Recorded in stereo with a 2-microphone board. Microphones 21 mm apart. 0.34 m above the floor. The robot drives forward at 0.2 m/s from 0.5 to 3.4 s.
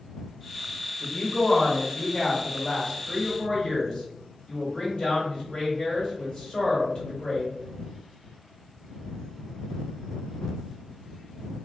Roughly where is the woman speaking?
Left.